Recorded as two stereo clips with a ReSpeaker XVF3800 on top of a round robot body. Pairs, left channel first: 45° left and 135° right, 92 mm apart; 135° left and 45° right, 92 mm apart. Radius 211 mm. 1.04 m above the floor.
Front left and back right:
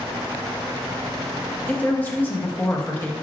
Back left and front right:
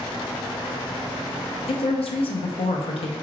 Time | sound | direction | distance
1.7 | a woman speaking | 115° left | 0.7 m